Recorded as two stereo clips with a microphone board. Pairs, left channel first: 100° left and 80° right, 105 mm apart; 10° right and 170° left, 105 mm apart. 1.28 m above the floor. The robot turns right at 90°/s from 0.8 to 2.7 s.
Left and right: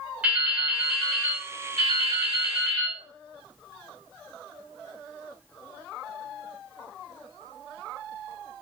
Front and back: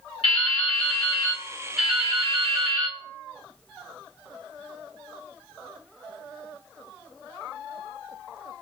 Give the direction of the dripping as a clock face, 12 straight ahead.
12 o'clock.